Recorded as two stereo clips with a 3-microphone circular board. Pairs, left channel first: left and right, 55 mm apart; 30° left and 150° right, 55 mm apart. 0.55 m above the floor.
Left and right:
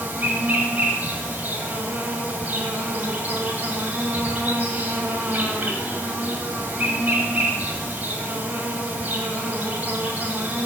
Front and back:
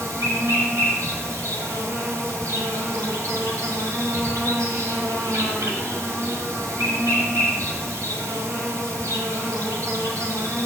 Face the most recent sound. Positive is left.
turn(degrees=-145)